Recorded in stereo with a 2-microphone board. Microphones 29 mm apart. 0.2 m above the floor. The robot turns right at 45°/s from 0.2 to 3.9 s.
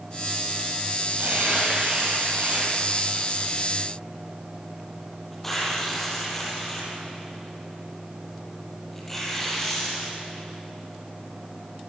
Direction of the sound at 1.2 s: 65° right (ahead or behind).